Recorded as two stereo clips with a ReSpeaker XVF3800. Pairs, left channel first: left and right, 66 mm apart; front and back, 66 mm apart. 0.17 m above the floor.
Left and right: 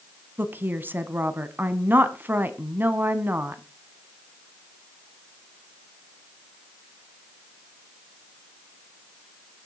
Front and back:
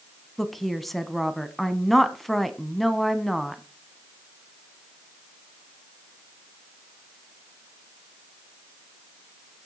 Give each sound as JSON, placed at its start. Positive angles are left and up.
{"t": 0.4, "sound": "a woman speaking", "azimuth_deg": -85, "distance_m": 1.1}